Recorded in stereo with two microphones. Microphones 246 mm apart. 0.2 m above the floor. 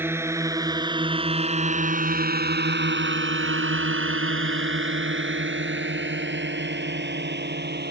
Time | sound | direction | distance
0.0 | a drone | 10° right (ahead or behind) | ?